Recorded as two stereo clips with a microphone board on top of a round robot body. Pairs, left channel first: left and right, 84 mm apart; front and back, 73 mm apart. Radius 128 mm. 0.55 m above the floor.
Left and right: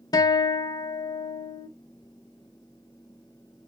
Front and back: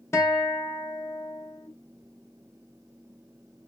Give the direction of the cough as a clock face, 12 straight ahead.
I don't hear a cough.